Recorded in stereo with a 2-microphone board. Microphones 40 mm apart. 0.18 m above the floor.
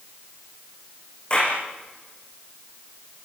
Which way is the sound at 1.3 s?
30° left (ahead or behind).